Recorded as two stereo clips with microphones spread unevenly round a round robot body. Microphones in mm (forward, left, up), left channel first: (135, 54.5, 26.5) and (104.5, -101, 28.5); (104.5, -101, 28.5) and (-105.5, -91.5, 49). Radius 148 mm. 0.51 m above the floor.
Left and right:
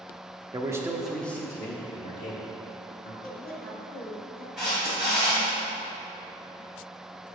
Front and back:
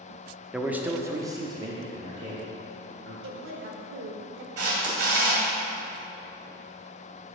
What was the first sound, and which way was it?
A man speaking, 90° right.